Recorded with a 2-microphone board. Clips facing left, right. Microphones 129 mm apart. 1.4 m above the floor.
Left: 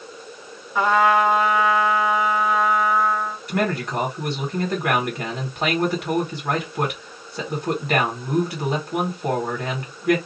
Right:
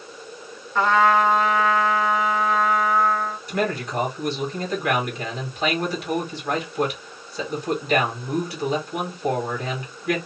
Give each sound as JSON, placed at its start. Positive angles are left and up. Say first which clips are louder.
{"t": 0.8, "sound": "a trumpet", "louder": "even", "side_deg": 10, "distance_m": 0.9}
{"t": 3.5, "sound": "a man speaking", "louder": "left 2 dB", "side_deg": 65, "distance_m": 1.6}